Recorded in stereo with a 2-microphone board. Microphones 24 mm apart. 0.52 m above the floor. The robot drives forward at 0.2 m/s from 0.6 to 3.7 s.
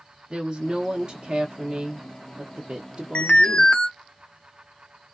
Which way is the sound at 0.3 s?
30° right (ahead or behind).